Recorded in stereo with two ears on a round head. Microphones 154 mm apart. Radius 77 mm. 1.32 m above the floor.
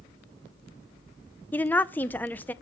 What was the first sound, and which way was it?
A woman speaking, 10° left (ahead or behind).